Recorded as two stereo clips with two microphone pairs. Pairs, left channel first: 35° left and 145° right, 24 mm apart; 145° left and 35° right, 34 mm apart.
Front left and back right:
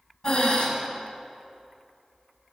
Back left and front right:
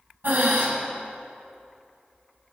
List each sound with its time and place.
0.2 s breathing: 15° right, 2.5 m